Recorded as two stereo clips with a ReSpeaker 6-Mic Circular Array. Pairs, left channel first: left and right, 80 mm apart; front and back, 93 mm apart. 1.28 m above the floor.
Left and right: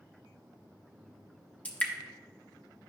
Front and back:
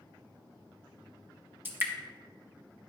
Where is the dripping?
140° left, 0.9 m.